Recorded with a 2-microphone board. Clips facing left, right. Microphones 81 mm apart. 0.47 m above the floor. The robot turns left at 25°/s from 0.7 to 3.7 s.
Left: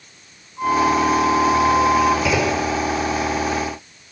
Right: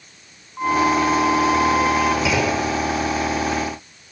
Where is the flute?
40° right, 1.2 m; by 2.1 s 75° right, 1.2 m.